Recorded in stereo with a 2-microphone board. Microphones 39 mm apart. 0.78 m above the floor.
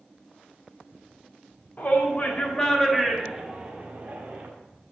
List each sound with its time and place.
1.8 s a shout: 45° left (ahead or behind), 2 m; by 4.5 s 50° right (ahead or behind), 2.5 m